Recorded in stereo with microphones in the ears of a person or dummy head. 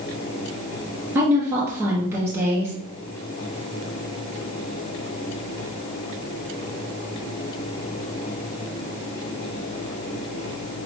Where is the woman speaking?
15° right (ahead or behind), 1.2 m.